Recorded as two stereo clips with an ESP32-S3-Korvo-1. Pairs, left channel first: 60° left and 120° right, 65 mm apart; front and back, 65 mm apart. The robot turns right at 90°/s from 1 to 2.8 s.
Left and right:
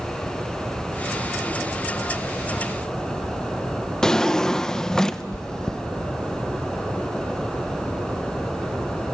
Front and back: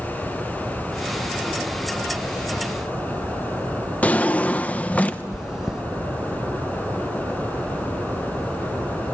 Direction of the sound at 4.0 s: 5° right.